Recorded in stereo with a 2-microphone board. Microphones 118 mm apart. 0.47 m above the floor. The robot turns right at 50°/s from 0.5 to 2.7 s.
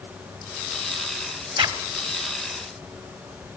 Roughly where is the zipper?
Right.